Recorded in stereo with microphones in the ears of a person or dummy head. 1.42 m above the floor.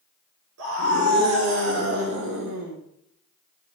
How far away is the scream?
About 3.5 m.